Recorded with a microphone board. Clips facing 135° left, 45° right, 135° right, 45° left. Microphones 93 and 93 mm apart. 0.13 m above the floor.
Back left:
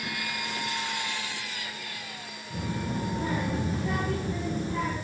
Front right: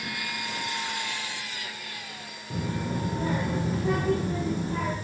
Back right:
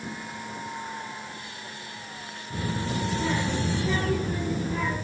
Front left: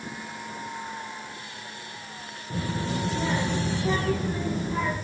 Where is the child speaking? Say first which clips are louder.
Front right 2 dB, front left 1 dB; 10° right, 3 m; by 5.0 s 15° right, 4 m.